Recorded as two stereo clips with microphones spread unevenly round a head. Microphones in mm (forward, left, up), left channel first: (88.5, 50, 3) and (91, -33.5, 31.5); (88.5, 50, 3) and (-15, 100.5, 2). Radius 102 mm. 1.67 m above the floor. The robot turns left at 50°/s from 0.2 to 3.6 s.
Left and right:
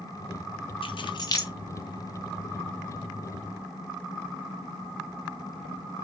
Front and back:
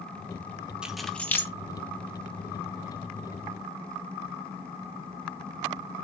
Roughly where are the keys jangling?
Left.